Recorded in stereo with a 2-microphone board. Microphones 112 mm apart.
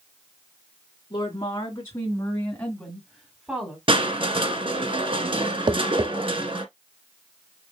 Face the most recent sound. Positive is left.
turn(degrees=-45)  # may be behind; listen again after turning